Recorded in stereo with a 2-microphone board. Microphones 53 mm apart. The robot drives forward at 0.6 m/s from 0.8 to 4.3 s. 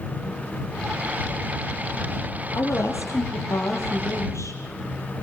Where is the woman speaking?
85° left, 7.5 m; by 4.6 s 80° left, 7.5 m.